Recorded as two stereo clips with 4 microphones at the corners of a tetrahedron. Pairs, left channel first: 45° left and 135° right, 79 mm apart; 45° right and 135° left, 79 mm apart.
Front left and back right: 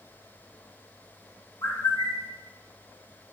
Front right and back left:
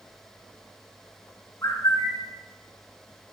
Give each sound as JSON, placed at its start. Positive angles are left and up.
{"t": 1.6, "sound": "a bird", "azimuth_deg": 5, "distance_m": 2.5}